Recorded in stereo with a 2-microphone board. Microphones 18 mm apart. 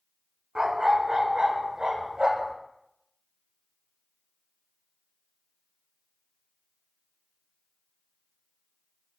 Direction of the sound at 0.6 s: 40° right (ahead or behind).